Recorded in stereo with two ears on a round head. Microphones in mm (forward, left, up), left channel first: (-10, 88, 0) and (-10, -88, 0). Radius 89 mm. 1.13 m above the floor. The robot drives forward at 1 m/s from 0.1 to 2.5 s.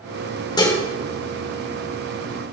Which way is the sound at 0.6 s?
20° left (ahead or behind).